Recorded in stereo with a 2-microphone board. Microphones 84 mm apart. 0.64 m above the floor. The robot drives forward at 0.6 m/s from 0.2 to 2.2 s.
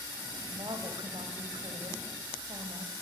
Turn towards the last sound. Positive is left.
turn(degrees=-75)  # may be behind; listen again after turning